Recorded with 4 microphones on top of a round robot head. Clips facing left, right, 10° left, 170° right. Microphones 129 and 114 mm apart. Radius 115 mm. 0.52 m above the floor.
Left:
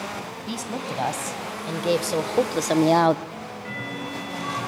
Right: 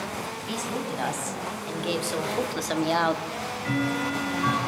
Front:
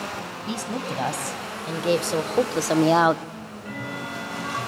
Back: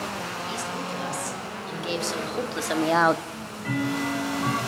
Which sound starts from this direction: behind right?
Ticking, at 3.3 s.